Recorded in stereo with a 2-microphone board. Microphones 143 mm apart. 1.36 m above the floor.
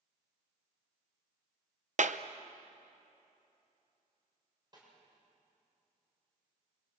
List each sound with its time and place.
2.0 s a clap: 65° right (ahead or behind), 0.7 m
4.7 s a snare drum: 30° right (ahead or behind), 7 m